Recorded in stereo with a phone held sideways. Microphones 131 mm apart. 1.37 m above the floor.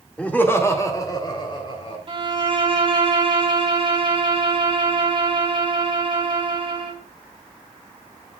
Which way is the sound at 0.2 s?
10° left (ahead or behind).